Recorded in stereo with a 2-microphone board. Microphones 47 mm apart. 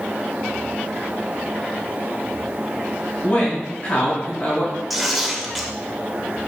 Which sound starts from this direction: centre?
Tearing paper, at 4.9 s.